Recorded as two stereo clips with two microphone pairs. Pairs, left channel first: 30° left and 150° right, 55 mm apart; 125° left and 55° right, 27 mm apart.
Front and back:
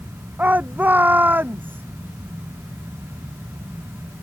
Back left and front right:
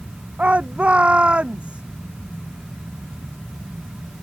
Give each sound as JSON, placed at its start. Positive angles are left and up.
{"t": 0.4, "sound": "a shout", "azimuth_deg": -90}